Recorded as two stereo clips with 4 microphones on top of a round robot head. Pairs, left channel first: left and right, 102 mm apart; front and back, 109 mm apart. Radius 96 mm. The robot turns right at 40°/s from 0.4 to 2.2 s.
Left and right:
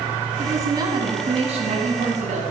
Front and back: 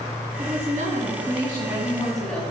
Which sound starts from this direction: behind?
A woman speaking, at 0.4 s.